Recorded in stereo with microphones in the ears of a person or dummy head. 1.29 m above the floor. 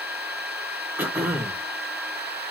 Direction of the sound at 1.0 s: 5° right (ahead or behind).